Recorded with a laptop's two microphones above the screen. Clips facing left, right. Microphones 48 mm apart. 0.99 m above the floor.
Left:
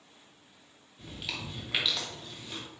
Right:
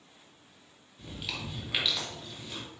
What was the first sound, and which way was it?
Chewing, centre (ahead or behind).